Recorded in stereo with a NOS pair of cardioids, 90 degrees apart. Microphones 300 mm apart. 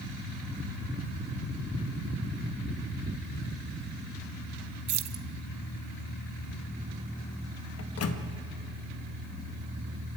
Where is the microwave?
50° left, 1.6 m.